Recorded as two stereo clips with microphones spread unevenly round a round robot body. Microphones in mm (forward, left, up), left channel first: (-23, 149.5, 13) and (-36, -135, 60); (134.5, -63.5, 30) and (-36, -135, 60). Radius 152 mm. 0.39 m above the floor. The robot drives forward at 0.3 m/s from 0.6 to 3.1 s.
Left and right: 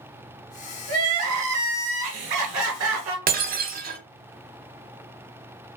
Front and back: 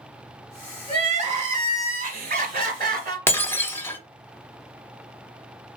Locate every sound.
0.9 s crying: 100° right, 1.2 m; by 3.2 s 125° right, 1.5 m
3.3 s breaking glass: 35° right, 0.7 m